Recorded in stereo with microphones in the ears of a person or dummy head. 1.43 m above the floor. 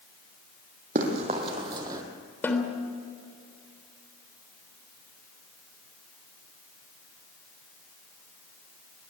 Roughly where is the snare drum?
Centre.